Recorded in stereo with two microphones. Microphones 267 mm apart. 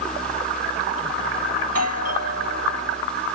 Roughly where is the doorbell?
Right.